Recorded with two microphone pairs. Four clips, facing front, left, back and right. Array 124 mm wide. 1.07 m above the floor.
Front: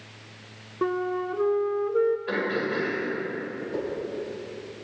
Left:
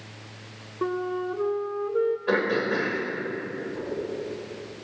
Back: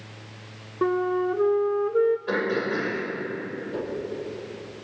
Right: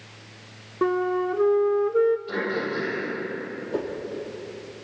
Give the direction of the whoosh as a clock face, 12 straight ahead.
3 o'clock.